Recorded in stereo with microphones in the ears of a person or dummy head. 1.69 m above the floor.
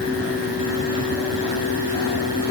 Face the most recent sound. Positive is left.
No sound to turn to.